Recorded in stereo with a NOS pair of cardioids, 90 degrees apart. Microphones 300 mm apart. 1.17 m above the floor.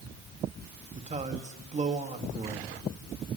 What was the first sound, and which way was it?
A man speaking, 25° right.